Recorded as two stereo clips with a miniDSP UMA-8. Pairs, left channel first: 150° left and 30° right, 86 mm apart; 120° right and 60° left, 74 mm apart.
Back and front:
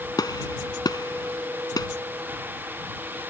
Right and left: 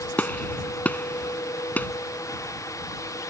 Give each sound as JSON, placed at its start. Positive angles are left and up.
{"t": 0.2, "sound": "a gunshot", "azimuth_deg": 175}